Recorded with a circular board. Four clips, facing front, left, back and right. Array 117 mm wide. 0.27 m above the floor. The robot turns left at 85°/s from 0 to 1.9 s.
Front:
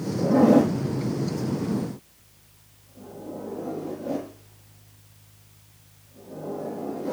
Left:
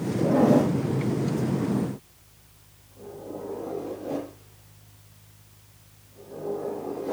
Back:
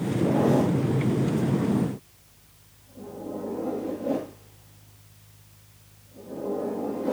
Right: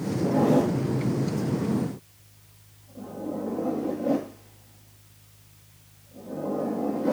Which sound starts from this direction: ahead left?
A zipper, at 0.2 s.